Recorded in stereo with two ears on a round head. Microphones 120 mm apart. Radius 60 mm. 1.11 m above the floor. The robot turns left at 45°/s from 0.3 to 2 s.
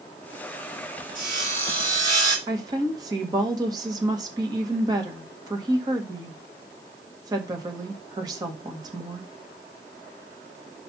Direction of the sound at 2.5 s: 30° right (ahead or behind).